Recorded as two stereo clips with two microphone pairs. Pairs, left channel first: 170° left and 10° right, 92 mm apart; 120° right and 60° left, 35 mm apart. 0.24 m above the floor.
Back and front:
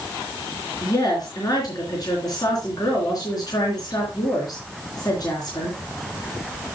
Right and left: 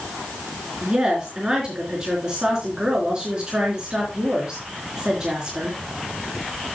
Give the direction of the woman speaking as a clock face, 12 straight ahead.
8 o'clock.